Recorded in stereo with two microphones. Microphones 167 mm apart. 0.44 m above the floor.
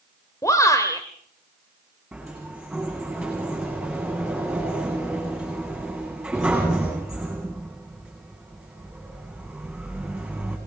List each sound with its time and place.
0.4 s a shout: 20° left (ahead or behind), 2.0 m
2.1 s a sliding door: 5° right (ahead or behind), 10 m